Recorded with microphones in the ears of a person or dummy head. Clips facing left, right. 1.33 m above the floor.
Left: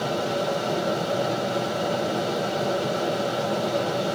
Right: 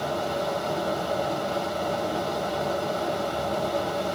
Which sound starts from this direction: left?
A fan, at 0.0 s.